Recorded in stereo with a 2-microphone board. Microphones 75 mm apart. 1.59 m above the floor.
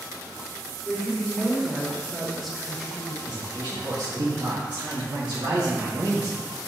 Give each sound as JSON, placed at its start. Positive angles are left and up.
{"t": 0.8, "sound": "a woman speaking", "side_deg": 0, "distance_m": 1.8}
{"t": 3.3, "sound": "a man speaking", "side_deg": -75, "distance_m": 1.5}